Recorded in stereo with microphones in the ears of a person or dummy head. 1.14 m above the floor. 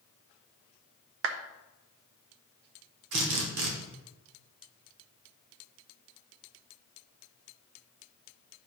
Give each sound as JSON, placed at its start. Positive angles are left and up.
{"t": 1.2, "sound": "a clap", "side_deg": -60, "distance_m": 0.6}
{"t": 3.1, "sound": "a drill", "side_deg": -60, "distance_m": 1.3}